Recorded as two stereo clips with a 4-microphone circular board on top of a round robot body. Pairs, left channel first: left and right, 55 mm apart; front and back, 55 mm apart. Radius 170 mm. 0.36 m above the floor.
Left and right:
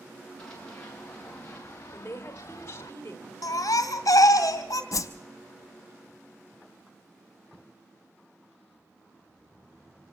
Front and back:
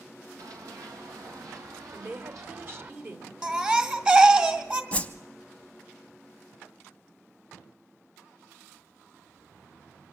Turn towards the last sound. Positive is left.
turn(degrees=70)